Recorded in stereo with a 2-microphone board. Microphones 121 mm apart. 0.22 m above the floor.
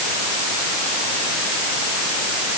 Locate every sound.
Only background noise.